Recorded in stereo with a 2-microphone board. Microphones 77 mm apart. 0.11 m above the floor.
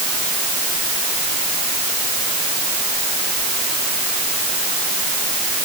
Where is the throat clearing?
No throat clearing in this recording.